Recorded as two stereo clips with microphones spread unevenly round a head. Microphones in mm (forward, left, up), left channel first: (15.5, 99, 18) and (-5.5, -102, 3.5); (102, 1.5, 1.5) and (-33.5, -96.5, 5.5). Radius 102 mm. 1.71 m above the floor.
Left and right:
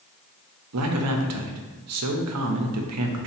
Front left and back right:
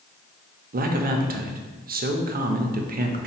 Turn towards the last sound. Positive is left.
turn(degrees=-110)